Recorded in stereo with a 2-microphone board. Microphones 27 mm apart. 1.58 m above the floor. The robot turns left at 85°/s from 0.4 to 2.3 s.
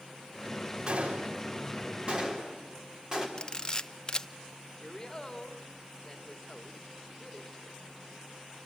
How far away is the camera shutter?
About 0.7 m.